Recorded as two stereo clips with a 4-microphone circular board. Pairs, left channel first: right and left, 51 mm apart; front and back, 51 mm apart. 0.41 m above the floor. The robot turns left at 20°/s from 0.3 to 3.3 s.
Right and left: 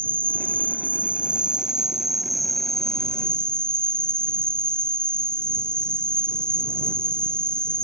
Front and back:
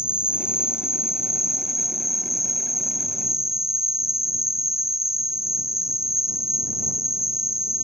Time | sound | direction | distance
0.0 | an insect | 40° left | ?